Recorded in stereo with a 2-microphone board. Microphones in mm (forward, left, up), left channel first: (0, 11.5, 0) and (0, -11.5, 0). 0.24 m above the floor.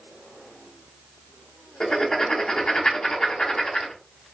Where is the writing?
30° left (ahead or behind), 0.8 m.